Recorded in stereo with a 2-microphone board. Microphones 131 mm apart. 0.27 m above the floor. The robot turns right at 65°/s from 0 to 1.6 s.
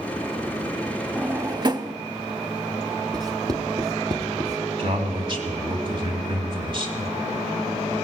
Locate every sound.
1.1 s a drawer: 10° right (ahead or behind), 0.5 m; by 1.9 s 35° right (ahead or behind), 0.5 m
3.1 s writing: 30° right (ahead or behind), 0.9 m
4.8 s a man speaking: 40° right (ahead or behind), 2 m